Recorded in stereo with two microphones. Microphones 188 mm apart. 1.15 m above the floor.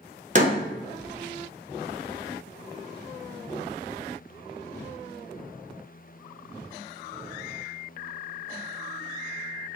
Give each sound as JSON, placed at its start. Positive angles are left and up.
{"t": 0.3, "sound": "a door slam", "side_deg": -40, "distance_m": 0.5}